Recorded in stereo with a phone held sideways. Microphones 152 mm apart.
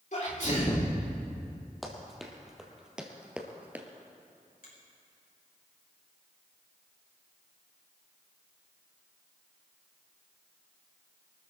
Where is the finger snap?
75° left (ahead or behind), 6 m.